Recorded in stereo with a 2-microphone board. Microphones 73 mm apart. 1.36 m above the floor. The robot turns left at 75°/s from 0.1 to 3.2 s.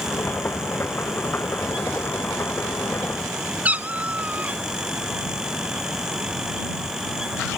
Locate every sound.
3.6 s a cat meowing: 20° right (ahead or behind)